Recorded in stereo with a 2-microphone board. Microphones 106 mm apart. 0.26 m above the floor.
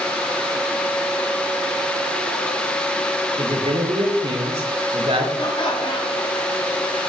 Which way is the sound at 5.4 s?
50° left (ahead or behind).